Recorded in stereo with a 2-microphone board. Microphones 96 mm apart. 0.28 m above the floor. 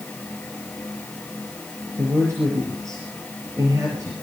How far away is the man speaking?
About 6.5 m.